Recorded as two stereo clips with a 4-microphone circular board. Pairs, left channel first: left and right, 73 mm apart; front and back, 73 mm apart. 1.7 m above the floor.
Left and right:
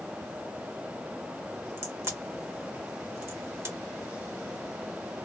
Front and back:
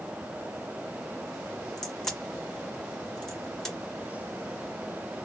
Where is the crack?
85° right, 1.3 m.